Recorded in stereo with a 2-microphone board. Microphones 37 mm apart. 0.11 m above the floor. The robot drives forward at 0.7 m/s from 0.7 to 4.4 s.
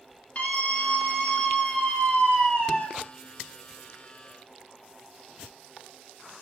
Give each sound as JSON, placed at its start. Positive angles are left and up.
{"t": 0.3, "sound": "a scream", "side_deg": 40, "distance_m": 2.5}